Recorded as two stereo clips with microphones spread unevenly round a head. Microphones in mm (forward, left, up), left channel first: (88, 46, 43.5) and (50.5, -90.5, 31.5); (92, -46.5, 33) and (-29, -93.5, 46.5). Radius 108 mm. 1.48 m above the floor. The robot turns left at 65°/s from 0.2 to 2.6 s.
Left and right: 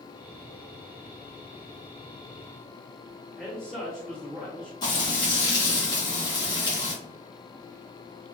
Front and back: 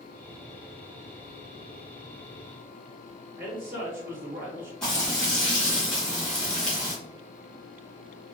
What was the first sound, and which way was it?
A man speaking, 160° left.